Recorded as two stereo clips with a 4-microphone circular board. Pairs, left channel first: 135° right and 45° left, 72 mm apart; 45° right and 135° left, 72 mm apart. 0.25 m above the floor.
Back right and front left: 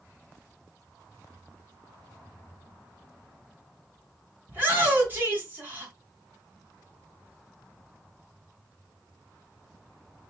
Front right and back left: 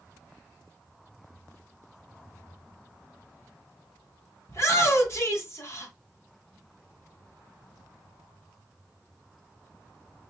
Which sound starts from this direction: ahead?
A shout, at 4.5 s.